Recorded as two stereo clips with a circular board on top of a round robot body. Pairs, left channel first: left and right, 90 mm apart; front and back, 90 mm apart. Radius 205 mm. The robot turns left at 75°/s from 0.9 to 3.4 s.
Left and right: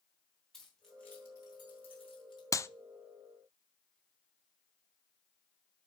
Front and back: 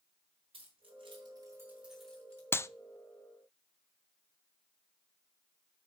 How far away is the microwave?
No microwave in this recording.